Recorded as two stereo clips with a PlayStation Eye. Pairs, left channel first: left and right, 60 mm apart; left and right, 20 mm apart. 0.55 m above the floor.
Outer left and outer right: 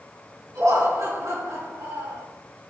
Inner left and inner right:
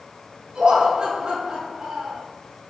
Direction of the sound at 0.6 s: 70° right (ahead or behind).